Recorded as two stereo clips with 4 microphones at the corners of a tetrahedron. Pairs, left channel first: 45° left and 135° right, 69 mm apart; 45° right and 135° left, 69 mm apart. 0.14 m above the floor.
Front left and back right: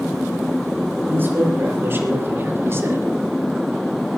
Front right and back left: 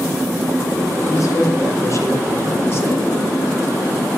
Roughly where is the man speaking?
Right.